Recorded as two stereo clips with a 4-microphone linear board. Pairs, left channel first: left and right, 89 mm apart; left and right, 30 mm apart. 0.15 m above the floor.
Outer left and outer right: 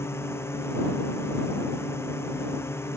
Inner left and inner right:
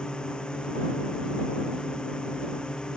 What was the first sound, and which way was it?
A drone, 30° left (ahead or behind).